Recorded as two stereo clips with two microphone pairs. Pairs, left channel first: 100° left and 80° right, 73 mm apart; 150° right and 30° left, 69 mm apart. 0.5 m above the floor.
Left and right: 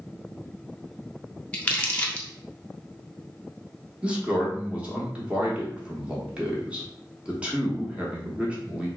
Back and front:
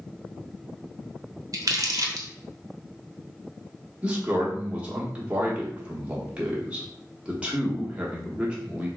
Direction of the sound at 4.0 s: 25° right.